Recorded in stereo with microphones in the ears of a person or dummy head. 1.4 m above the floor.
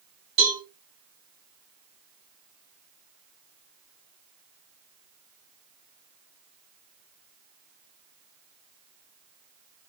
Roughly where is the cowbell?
Right.